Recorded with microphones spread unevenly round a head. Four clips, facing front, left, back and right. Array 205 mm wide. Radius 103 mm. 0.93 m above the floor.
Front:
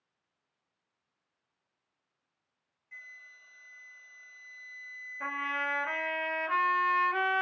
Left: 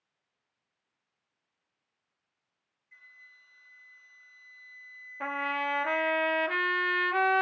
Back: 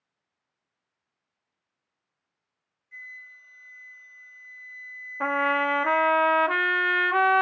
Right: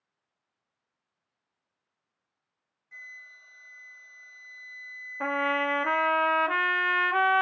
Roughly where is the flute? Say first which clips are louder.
Right 9 dB, back 6 dB; ahead right.